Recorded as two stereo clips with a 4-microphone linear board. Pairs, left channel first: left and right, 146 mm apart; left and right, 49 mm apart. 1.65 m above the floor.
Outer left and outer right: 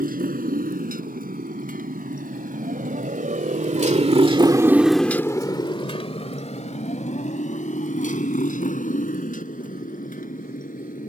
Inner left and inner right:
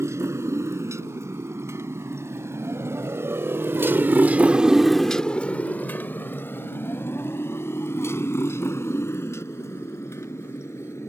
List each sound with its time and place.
0.0 s a motorcycle: 70° right (ahead or behind); by 11.1 s 65° left (ahead or behind)